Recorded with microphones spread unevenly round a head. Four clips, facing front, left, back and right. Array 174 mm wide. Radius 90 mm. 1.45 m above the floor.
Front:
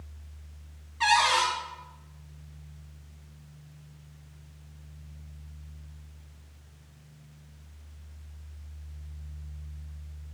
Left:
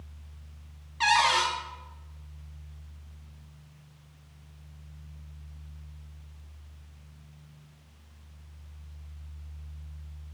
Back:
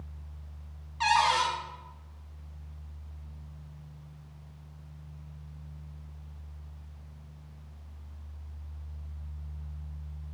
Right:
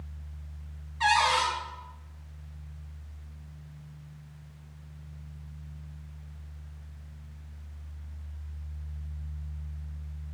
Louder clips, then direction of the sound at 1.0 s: Even, front 1 dB; 80° left.